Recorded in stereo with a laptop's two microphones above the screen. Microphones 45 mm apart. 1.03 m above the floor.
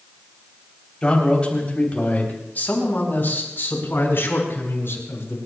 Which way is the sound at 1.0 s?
20° left (ahead or behind).